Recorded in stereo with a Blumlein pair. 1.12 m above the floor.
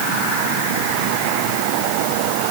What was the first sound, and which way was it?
Only background noise.